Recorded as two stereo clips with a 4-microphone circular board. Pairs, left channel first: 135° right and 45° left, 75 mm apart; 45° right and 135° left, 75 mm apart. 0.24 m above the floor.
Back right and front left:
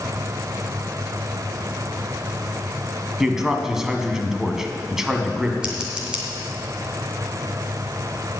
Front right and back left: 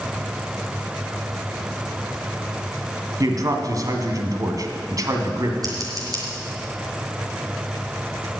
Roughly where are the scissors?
Behind left.